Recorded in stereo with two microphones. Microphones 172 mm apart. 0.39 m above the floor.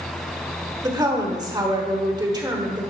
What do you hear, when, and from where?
0.8 s a woman speaking: 25° right (ahead or behind), 1.1 m